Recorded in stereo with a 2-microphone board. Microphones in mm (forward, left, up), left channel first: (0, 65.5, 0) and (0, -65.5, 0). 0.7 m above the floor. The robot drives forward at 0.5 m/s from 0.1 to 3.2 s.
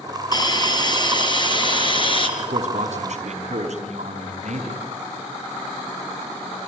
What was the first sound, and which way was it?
A hiss, 30° left (ahead or behind).